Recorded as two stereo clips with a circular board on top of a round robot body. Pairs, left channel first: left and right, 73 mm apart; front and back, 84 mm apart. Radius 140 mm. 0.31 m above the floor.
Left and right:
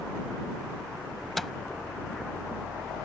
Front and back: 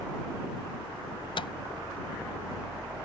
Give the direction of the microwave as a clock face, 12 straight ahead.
12 o'clock.